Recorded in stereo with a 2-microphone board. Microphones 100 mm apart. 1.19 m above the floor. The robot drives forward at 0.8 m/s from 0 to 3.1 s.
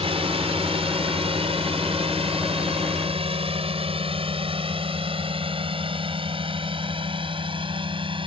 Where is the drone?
70° right (ahead or behind); by 8.3 s 55° right (ahead or behind).